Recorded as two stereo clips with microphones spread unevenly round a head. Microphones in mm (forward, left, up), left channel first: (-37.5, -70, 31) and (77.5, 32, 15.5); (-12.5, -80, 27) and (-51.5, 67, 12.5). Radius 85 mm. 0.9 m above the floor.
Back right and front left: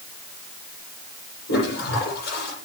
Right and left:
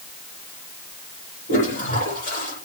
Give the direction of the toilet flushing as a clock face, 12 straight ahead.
4 o'clock.